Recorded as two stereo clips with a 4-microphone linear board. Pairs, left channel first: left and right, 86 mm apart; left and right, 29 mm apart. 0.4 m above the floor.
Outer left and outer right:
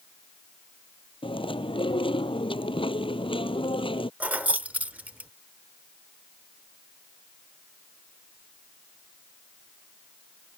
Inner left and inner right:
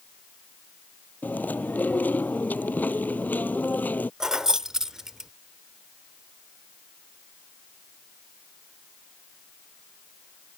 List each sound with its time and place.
1.2 s chewing: 80° left
4.2 s keys jangling: 15° right (ahead or behind)